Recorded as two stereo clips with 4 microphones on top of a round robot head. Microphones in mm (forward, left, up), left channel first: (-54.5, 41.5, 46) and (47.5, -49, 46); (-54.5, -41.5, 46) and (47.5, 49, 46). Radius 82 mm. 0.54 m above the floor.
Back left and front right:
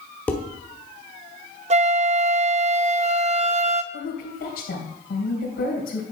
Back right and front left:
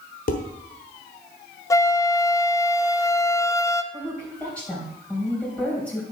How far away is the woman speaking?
About 3 m.